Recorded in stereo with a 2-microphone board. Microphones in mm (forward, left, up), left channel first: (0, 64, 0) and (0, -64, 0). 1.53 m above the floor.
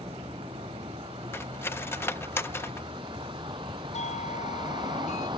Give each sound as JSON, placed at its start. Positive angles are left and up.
{"t": 0.0, "sound": "a vehicle", "side_deg": -45}
{"t": 1.3, "sound": "cutlery clinking", "side_deg": 20}
{"t": 3.9, "sound": "a doorbell", "side_deg": 65}